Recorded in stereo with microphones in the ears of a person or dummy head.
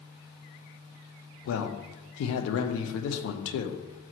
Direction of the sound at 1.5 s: 75° left (ahead or behind).